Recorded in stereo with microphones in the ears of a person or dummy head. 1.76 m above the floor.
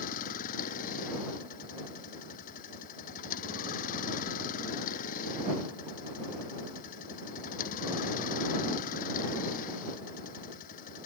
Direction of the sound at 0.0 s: 45° left (ahead or behind).